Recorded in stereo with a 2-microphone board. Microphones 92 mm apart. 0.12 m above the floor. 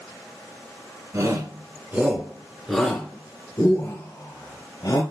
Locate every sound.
1.1 s a shout: 40° right (ahead or behind), 1.6 m; by 5.0 s 50° left (ahead or behind), 2.0 m